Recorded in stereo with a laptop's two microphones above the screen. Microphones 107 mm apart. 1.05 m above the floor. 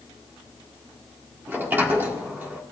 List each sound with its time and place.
1.5 s a sliding door: 20° right (ahead or behind), 1.5 m